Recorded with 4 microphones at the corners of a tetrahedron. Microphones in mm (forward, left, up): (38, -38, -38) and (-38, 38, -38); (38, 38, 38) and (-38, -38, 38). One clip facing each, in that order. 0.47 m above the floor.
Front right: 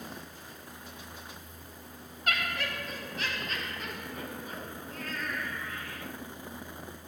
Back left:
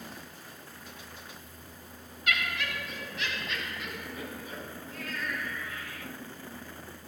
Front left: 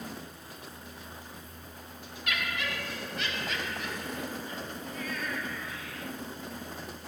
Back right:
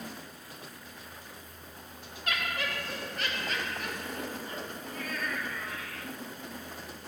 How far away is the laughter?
About 2 m.